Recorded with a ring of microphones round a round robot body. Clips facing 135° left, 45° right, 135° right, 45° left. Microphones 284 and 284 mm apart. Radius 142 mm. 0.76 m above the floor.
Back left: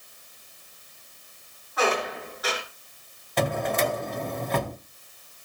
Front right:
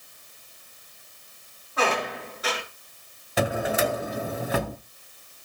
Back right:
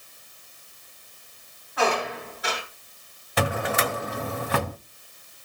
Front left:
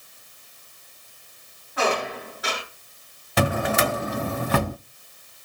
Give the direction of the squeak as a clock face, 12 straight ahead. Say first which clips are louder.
Back left 1 dB, even; 11 o'clock.